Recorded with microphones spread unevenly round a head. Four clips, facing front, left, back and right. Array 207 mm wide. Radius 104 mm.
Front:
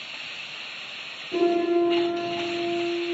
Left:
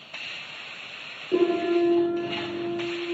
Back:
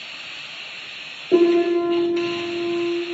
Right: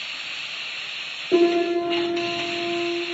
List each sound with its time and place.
1.3 s a piano: 160° right, 8.5 m